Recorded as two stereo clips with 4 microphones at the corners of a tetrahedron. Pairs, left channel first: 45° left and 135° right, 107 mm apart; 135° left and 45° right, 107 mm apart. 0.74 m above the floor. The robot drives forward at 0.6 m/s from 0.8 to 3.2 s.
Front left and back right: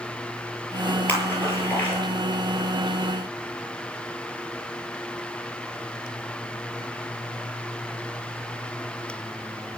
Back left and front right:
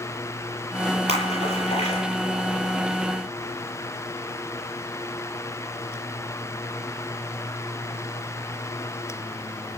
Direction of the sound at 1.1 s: 115° left.